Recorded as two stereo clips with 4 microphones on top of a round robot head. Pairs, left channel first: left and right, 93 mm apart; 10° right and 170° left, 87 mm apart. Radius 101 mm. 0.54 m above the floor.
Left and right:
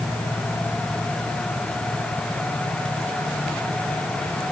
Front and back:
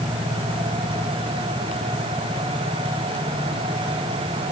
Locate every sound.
Only background noise.